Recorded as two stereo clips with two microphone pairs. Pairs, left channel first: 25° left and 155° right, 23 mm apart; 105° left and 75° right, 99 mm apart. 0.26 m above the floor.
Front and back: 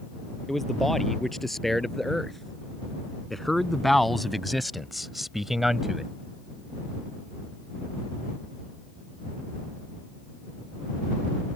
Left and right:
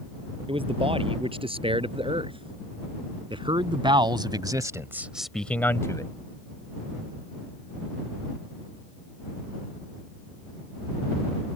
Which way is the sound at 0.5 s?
55° right.